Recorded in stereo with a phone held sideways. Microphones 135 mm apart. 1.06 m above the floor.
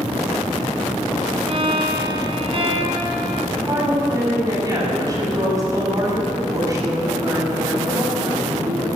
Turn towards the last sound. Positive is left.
turn(degrees=-25)  # may be behind; listen again after turning